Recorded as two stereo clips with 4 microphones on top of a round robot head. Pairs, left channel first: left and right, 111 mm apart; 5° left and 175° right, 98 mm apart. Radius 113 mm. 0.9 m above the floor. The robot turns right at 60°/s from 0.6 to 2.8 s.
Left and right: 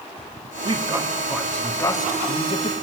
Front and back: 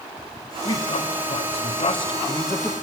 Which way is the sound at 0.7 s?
45° right.